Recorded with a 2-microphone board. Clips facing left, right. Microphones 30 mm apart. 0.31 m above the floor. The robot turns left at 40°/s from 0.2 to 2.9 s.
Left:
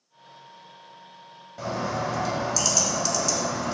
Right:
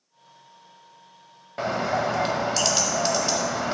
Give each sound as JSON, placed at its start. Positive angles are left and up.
{"t": 1.6, "sound": "a bird", "azimuth_deg": -70, "distance_m": 0.6}